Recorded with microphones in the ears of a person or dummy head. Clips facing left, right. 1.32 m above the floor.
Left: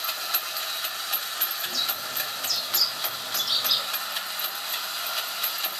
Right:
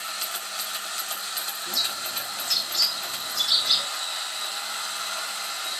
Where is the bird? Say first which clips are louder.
Right 1 dB; 50° left (ahead or behind), 2 m.